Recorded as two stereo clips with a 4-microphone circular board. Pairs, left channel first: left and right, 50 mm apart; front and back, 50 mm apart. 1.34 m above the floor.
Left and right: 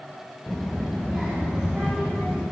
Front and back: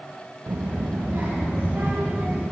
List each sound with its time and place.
0.5 s a child speaking: 160° left, 0.5 m; by 2.4 s 160° right, 3 m